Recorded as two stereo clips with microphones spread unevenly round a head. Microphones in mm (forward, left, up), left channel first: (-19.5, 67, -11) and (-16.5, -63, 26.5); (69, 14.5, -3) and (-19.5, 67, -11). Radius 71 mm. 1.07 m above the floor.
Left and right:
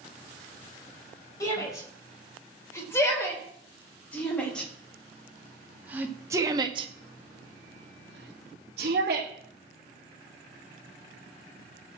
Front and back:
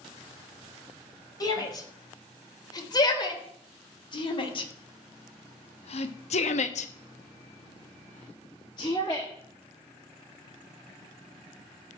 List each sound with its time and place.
1.4 s a shout: 20° left, 4.5 m; by 9.3 s 105° right, 1.7 m